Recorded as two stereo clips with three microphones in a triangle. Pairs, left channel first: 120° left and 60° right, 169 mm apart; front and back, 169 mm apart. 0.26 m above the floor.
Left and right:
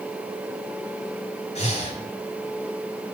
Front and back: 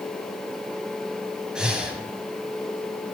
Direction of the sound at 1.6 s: 95° left.